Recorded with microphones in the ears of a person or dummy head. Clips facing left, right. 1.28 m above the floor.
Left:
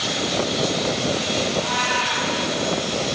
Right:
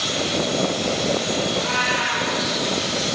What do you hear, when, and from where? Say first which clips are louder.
1.5 s a cat meowing: even; 75° right (ahead or behind), 5 m